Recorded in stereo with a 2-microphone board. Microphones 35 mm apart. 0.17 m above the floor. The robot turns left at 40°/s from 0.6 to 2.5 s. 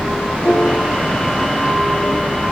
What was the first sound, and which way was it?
A piano, 35° left (ahead or behind).